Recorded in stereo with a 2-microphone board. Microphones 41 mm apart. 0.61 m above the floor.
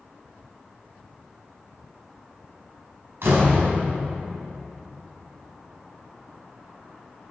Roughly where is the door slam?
Right.